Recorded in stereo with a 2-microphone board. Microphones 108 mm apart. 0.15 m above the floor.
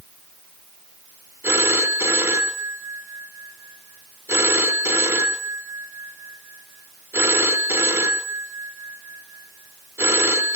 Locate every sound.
1.4 s a phone ringing: 20° right (ahead or behind), 1.5 m